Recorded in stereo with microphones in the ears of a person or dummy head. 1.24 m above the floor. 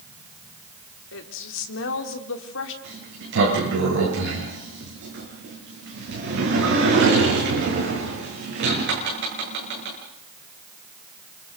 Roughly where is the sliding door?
Right.